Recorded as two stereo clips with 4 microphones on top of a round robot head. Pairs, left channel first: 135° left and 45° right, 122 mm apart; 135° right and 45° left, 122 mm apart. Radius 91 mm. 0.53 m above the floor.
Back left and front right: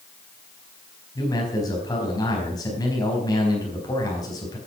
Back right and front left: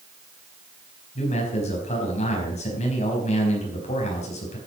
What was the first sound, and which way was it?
A man speaking, 165° right.